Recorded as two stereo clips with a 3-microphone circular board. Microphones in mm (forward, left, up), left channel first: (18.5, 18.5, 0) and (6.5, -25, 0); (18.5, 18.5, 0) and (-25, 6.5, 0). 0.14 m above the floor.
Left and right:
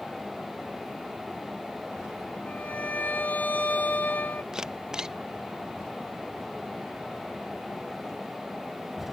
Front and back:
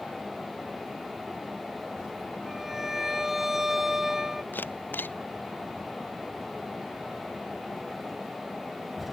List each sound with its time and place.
2.5 s a violin: 110° left
4.5 s a camera shutter: 30° right